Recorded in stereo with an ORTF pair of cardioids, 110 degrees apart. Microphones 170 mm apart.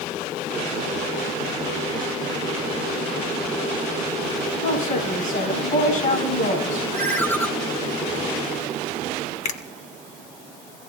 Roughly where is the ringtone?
Ahead.